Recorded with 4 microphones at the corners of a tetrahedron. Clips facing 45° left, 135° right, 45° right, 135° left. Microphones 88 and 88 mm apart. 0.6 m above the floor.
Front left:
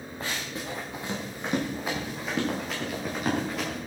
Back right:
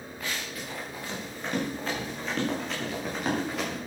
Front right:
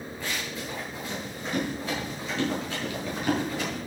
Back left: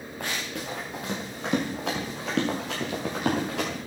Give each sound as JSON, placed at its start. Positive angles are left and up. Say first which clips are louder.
{"t": 0.2, "sound": "running footsteps", "louder": "front left 2 dB, back left 2 dB", "azimuth_deg": 100, "distance_m": 4.5}